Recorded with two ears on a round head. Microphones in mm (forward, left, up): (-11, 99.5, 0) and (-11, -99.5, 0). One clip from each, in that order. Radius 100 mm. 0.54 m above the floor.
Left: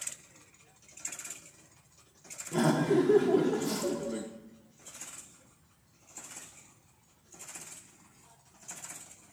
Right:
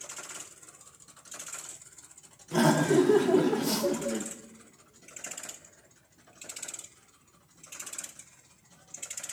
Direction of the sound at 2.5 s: 20° right (ahead or behind).